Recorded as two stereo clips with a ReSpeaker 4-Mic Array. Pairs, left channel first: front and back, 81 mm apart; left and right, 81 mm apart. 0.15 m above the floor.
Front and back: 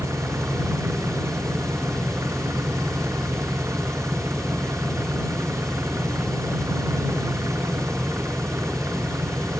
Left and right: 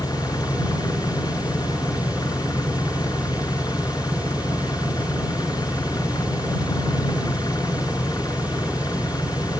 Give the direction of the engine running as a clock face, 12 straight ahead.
8 o'clock.